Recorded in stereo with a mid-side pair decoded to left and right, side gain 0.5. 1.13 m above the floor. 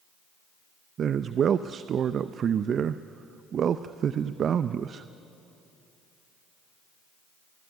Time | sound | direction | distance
1.0 | a man speaking | 50° right | 0.6 m